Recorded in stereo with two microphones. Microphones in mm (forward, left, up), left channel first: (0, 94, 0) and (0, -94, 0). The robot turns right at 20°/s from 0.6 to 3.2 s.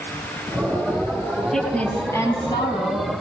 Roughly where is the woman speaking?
Ahead.